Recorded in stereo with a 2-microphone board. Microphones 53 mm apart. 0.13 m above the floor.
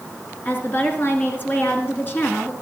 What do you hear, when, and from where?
0.5 s a woman speaking: 35° left (ahead or behind), 1.5 m